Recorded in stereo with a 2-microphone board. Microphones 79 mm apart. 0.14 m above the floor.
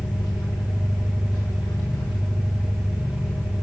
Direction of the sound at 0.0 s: 45° left (ahead or behind).